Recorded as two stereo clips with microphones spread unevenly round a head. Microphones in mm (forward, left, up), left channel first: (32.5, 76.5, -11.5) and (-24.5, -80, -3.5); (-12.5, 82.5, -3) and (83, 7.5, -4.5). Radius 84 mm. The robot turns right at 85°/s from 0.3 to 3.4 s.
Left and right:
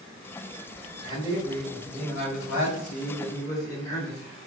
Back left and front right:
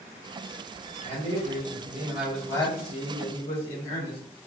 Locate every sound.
1.0 s a man speaking: 55° right, 1.8 m; by 4.2 s 145° left, 1.8 m